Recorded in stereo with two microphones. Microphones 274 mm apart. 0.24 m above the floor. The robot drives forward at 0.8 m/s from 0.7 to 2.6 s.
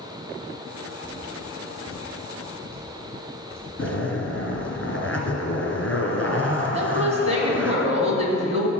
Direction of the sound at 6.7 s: 25° right (ahead or behind).